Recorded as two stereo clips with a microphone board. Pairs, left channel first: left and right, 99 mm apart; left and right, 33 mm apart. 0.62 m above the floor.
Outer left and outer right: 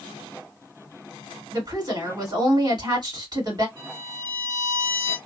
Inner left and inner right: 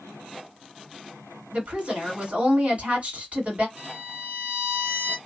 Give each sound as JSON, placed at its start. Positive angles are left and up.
{"t": 1.5, "sound": "a woman speaking", "side_deg": -45, "distance_m": 2.0}
{"t": 3.8, "sound": "a violin", "side_deg": -65, "distance_m": 1.4}